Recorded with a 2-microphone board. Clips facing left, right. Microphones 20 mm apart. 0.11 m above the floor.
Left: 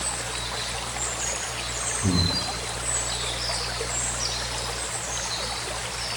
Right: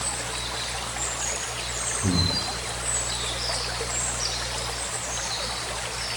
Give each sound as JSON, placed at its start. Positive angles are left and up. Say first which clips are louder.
{"t": 2.0, "sound": "breathing", "louder": "even", "side_deg": -30, "distance_m": 5.0}